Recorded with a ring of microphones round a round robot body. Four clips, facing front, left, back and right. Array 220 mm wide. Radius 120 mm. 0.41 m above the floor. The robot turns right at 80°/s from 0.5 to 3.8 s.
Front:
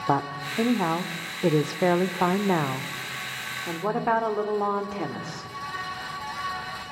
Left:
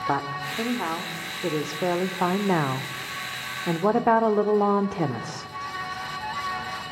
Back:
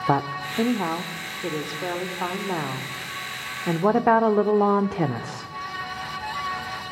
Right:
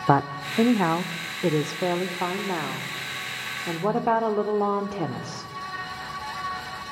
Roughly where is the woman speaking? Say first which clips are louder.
Right 7 dB, back 1 dB; right.